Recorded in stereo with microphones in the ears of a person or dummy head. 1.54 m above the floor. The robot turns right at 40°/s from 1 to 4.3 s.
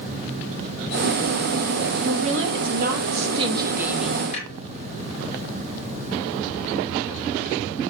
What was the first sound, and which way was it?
A woman speaking, 80° right.